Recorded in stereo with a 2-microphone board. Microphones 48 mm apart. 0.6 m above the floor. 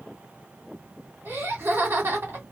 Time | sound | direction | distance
1.2 | laughter | 60° right (ahead or behind) | 2.5 m